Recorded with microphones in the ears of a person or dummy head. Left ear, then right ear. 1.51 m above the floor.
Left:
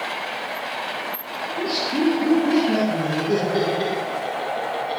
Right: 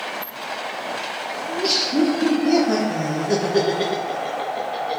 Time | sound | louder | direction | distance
1.5 | laughter | right 3 dB | 70° right (ahead or behind) | 1.6 m